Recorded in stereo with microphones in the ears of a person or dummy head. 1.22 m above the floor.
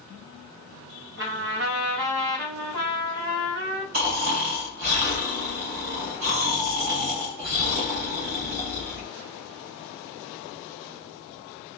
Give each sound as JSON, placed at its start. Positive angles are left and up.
{"t": 1.2, "sound": "a trumpet", "side_deg": -50, "distance_m": 0.9}
{"t": 3.9, "sound": "snoring", "side_deg": -35, "distance_m": 1.5}